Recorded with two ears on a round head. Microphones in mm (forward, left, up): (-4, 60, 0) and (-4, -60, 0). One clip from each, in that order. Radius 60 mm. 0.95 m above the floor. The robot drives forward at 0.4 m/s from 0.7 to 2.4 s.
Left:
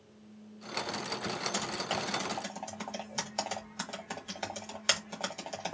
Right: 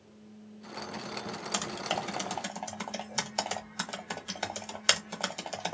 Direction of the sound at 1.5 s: 25° right (ahead or behind).